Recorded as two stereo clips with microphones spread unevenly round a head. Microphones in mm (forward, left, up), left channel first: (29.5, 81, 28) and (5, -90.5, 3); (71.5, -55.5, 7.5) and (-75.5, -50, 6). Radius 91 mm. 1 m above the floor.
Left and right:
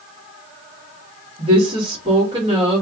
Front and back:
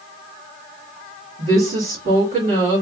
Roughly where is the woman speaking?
Behind right.